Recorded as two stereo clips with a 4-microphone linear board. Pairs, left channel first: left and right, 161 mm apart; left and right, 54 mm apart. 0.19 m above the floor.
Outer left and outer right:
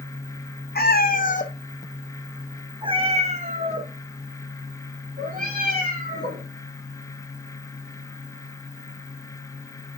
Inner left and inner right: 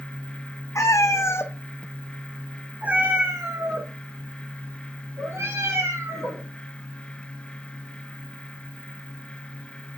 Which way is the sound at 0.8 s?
75° left (ahead or behind).